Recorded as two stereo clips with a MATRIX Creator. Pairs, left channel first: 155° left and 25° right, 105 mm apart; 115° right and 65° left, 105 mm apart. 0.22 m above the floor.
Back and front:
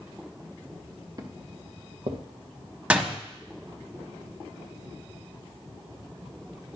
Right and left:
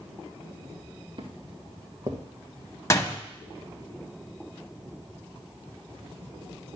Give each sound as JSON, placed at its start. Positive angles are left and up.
{"t": 1.2, "sound": "footsteps", "azimuth_deg": 30, "distance_m": 1.5}
{"t": 2.9, "sound": "a door slam", "azimuth_deg": -90, "distance_m": 0.9}